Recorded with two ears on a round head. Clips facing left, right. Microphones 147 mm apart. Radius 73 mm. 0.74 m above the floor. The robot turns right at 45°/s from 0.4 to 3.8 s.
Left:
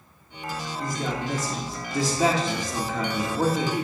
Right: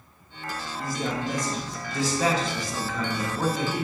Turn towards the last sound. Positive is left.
turn(degrees=15)  # may be behind; listen again after turning